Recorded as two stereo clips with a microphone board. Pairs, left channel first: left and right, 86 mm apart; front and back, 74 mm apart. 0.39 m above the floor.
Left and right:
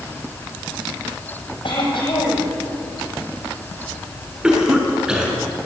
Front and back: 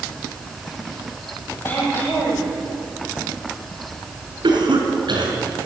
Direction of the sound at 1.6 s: 65° left.